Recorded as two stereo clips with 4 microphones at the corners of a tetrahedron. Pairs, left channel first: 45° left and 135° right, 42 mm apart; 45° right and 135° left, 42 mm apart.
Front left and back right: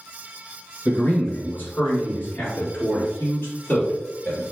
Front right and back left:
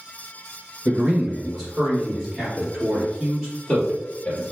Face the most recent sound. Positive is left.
turn(degrees=15)